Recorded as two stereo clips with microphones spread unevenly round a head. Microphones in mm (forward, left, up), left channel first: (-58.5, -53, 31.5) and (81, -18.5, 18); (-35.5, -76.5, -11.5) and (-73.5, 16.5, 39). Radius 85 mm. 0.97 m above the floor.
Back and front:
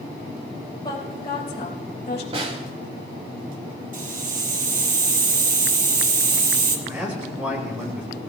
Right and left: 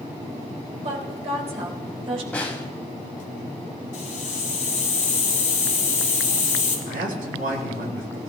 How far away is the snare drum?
About 0.9 m.